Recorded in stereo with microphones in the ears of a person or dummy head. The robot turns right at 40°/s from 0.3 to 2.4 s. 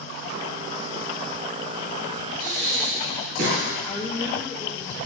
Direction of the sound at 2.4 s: 50° right (ahead or behind).